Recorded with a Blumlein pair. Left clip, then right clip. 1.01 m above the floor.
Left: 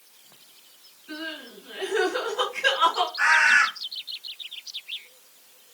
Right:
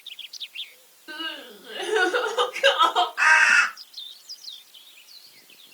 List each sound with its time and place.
1.1 s crying: 35° right, 1.9 m
3.2 s a bird: 65° right, 1.8 m